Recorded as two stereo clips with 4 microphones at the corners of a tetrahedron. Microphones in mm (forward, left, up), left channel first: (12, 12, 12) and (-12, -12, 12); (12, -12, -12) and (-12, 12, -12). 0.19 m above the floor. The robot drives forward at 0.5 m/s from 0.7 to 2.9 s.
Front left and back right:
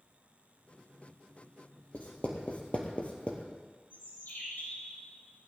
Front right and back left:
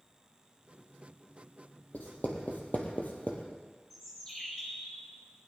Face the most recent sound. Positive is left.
turn(degrees=30)